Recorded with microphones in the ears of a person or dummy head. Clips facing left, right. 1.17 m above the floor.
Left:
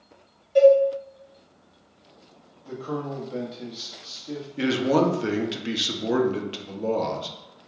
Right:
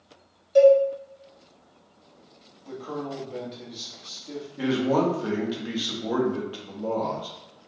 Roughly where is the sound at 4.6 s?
Left.